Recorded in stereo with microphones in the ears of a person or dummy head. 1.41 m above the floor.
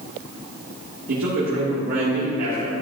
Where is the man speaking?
55° right (ahead or behind), 3 m.